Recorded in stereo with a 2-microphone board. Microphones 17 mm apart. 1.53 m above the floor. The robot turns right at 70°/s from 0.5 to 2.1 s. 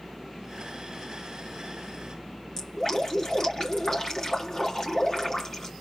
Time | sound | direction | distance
2.6 | dripping | 35° left (ahead or behind) | 3 m